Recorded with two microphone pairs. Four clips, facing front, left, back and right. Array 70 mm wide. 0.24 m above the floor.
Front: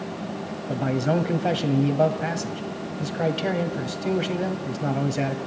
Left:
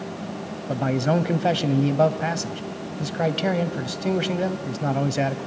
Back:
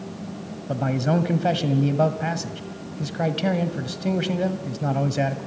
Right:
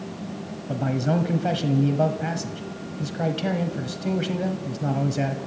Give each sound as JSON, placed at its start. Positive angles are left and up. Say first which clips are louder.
{"t": 0.7, "sound": "a man speaking", "louder": "left 2 dB, back 1 dB", "azimuth_deg": 105, "distance_m": 1.2}